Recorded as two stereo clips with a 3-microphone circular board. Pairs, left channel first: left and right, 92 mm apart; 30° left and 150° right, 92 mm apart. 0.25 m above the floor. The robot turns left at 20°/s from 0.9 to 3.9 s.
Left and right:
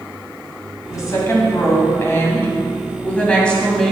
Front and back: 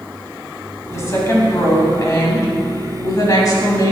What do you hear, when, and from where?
0.9 s a woman speaking: 70° left, 1.9 m; by 3.9 s 10° left, 1.9 m